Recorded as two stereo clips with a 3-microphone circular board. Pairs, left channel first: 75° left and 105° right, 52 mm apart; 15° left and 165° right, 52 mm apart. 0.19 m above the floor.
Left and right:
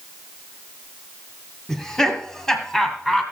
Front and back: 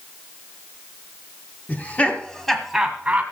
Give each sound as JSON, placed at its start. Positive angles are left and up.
{"t": 1.7, "sound": "laughter", "azimuth_deg": 0, "distance_m": 1.7}